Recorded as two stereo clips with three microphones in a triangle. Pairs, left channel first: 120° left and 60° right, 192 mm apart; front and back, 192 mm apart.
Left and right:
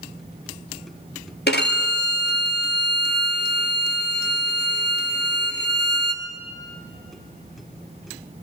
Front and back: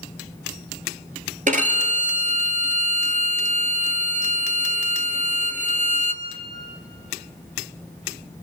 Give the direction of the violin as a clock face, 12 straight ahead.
8 o'clock.